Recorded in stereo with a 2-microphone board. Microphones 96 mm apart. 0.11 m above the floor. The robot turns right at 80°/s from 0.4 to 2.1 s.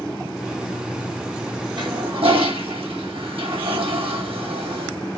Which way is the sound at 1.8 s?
50° right (ahead or behind).